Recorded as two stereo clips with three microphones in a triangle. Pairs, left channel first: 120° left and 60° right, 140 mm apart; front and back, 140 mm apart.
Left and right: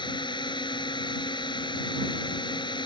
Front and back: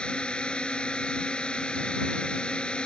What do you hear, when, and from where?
0.0 s a drone: 80° left